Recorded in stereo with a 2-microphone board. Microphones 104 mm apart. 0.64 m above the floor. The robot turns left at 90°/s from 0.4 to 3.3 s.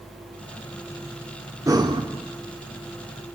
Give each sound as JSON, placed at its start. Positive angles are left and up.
{"t": 1.7, "sound": "breathing", "azimuth_deg": -40, "distance_m": 1.6}